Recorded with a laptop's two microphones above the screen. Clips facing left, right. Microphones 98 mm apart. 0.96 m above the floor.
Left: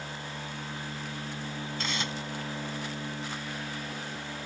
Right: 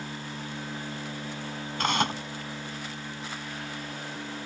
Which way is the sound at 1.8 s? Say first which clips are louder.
Right 10 dB; 60° right (ahead or behind).